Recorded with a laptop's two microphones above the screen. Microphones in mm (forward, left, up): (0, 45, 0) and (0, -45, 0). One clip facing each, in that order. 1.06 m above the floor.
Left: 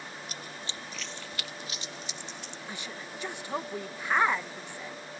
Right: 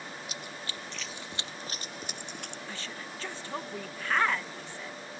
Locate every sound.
0.3 s running footsteps: 40° left (ahead or behind); by 2.6 s 55° right (ahead or behind)
2.7 s a woman speaking: 15° left (ahead or behind)